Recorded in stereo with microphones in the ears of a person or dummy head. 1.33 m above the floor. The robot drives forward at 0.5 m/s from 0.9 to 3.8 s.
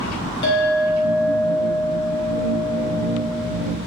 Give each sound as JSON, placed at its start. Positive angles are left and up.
{"t": 0.4, "sound": "a clink", "side_deg": 25, "distance_m": 3.0}